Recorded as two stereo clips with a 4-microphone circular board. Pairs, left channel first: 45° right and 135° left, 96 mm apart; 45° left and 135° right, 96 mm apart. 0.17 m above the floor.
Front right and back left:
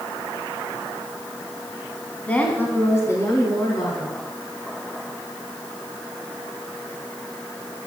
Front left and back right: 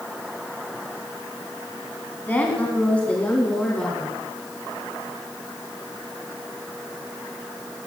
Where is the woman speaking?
5° left, 1.7 m; by 4.2 s 35° right, 2 m.